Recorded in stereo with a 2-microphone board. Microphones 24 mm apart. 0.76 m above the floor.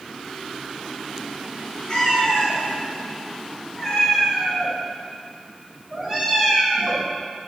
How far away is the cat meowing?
About 4 m.